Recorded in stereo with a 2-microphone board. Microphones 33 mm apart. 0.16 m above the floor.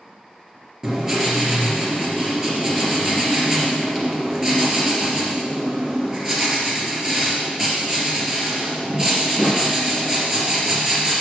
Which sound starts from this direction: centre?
Writing, at 0.8 s.